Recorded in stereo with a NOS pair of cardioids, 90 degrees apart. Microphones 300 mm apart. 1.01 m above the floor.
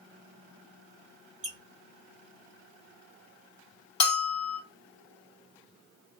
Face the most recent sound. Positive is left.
turn(degrees=60)